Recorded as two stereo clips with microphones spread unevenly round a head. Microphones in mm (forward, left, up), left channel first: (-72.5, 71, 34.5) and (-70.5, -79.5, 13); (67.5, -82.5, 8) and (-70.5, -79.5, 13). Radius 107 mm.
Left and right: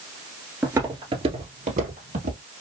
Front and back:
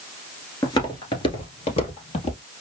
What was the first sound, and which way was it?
Footsteps, straight ahead.